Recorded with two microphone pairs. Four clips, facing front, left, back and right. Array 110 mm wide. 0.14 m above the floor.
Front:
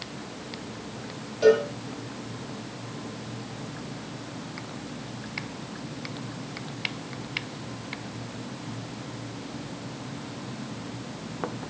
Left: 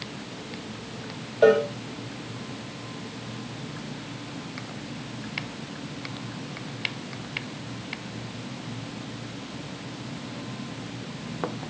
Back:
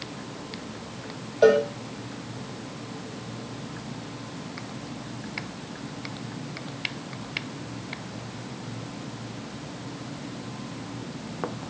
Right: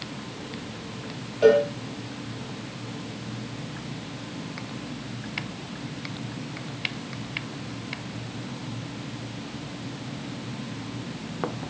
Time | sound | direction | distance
1.4 | a cowbell | 145° left | 5.5 m